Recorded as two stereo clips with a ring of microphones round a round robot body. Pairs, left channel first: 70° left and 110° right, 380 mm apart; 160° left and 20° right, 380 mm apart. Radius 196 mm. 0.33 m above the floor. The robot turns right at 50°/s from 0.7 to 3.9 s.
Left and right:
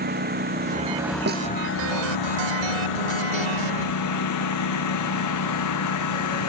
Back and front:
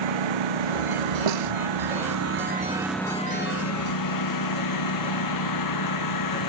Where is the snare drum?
45° right; by 1.5 s 35° right.